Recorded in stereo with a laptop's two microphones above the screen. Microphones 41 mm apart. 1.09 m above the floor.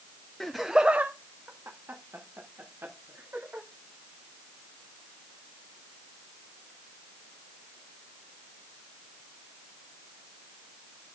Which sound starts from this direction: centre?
Laughter, at 0.4 s.